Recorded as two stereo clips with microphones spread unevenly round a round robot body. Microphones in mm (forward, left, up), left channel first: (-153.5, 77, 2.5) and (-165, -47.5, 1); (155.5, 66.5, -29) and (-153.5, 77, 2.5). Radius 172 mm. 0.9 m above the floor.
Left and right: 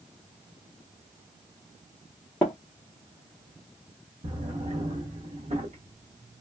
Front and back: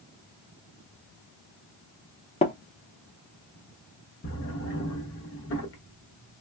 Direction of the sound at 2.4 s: 25° left.